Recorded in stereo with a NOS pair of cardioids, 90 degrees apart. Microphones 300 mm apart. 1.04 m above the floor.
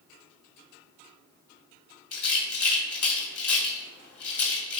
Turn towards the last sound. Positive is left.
turn(degrees=55)